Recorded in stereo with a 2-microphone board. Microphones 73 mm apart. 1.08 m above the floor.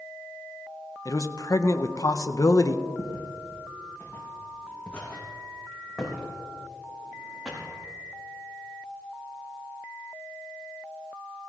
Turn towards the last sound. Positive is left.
turn(degrees=-15)  # may be behind; listen again after turning